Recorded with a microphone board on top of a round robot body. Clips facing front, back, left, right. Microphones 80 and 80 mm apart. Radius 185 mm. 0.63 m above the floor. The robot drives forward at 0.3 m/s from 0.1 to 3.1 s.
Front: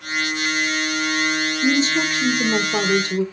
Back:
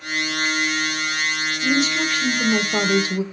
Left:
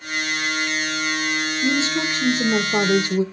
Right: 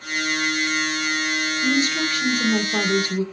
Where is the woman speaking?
35° left, 0.7 m; by 3.2 s 120° left, 0.6 m.